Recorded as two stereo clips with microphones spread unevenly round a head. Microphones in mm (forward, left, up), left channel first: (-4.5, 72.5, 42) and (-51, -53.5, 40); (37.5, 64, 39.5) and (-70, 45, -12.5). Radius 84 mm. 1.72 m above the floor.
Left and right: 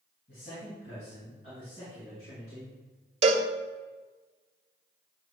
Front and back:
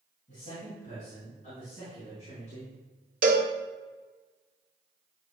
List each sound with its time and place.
0.3 s a man speaking: 30° left, 3 m; by 2.7 s 35° left, 5.5 m
3.2 s a cowbell: 155° right, 1.2 m